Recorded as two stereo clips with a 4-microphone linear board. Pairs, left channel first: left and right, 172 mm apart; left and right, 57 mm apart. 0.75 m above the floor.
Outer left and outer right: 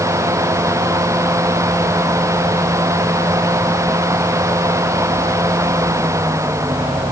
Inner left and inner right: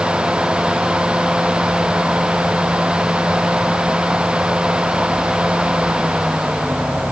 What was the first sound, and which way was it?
Only background noise.